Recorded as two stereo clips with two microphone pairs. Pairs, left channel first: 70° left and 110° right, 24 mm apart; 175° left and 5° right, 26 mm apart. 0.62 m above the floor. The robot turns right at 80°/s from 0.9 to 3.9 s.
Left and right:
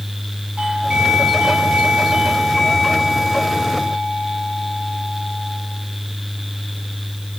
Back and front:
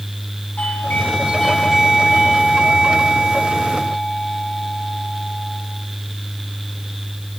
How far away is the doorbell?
About 7 m.